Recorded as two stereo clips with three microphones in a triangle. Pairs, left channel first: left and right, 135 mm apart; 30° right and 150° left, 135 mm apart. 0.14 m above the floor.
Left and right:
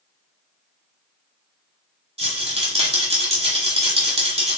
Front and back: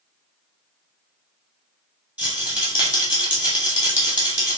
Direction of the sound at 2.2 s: 130° right.